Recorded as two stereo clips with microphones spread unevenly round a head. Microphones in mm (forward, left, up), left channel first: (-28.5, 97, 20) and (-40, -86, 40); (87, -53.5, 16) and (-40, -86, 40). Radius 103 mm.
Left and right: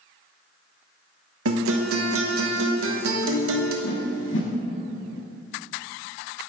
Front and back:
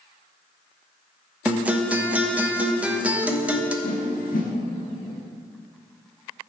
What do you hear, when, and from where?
1.4 s a guitar: 85° right, 1.1 m
3.8 s a whoosh: 55° left, 1.0 m